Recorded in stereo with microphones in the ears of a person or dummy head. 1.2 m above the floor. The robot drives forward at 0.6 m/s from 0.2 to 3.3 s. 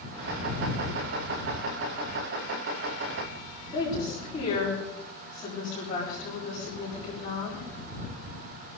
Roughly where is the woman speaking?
Left.